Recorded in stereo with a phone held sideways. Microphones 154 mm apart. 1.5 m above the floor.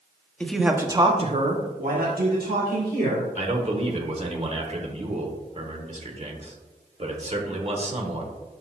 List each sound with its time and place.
0.4 s a man speaking: 5° left (ahead or behind), 0.8 m; by 3.3 s 85° right, 2 m
3.4 s a man speaking: 45° right (ahead or behind), 1.1 m